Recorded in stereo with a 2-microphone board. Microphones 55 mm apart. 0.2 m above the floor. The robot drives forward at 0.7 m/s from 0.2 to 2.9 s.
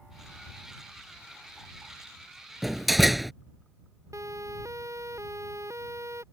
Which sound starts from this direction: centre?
A door slam, at 2.6 s.